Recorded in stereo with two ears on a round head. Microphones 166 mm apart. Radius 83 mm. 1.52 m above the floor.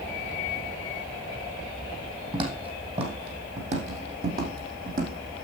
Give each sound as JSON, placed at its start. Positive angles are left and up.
{"t": 2.3, "sound": "footsteps", "side_deg": -25, "distance_m": 3.5}